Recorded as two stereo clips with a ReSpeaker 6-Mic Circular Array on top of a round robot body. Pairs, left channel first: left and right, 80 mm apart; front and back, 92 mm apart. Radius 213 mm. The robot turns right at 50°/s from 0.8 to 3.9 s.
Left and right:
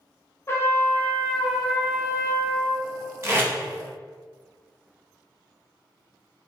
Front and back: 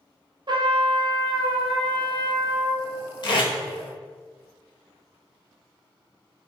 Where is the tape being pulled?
35° right, 1.1 m; by 3.5 s 25° right, 1.1 m.